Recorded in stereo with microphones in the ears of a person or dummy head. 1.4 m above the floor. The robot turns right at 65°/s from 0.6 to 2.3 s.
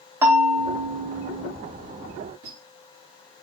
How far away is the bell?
About 0.9 m.